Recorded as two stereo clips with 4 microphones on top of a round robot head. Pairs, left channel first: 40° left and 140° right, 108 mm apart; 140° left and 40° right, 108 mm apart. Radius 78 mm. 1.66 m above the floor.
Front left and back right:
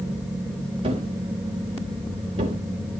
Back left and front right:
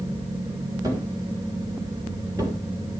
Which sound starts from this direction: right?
A thud, at 0.8 s.